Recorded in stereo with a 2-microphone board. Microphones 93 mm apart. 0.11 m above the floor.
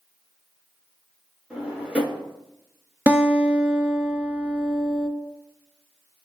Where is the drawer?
15° right (ahead or behind), 0.7 m.